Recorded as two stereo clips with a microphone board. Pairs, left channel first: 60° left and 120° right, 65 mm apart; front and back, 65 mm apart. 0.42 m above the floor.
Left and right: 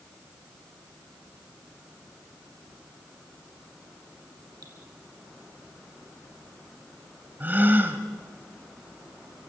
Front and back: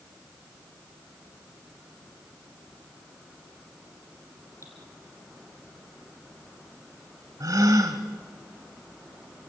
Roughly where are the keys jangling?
I don't hear keys jangling.